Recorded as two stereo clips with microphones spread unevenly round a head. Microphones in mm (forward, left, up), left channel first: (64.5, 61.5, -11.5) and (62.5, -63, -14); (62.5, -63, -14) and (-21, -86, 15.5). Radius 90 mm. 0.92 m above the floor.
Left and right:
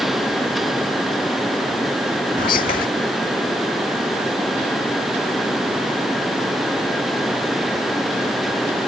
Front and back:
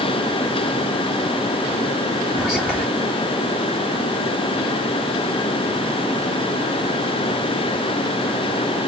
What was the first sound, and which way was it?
Whispering, 105° left.